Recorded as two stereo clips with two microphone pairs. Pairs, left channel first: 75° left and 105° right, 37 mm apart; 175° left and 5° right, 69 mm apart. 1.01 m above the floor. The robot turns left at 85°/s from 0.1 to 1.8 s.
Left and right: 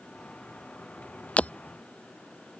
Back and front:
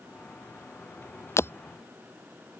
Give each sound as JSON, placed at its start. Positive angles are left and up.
{"t": 1.4, "sound": "breaking glass", "azimuth_deg": 125}